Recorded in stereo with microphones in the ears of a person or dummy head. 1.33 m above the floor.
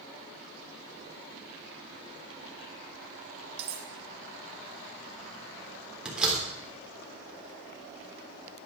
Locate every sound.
3.6 s cutlery clinking: 30° right (ahead or behind), 1.0 m
6.0 s a door slam: 5° right (ahead or behind), 3.5 m